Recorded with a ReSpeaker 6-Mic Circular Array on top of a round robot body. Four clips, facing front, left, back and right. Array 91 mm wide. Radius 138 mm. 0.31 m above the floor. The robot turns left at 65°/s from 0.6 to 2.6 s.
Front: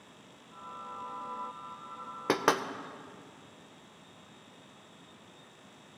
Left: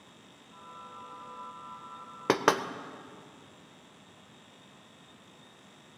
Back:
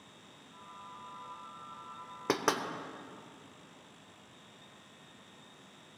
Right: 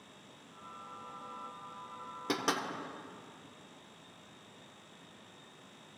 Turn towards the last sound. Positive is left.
turn(degrees=60)